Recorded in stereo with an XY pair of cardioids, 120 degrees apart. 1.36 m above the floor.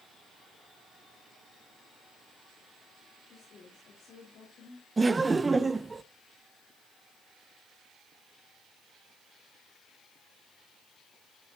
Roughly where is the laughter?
Ahead.